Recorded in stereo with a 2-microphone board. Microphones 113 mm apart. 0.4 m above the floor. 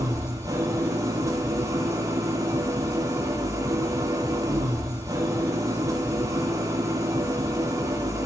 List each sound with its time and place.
0.0 s an engine running: 30° right (ahead or behind), 5 m